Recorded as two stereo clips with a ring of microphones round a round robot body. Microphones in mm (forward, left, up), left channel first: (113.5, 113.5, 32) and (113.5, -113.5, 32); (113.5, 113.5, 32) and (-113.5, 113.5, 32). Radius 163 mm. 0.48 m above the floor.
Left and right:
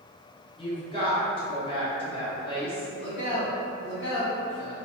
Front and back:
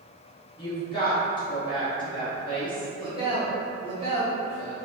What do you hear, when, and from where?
0.6 s a woman speaking: 50° left, 1.1 m
3.0 s a man speaking: 130° left, 1.2 m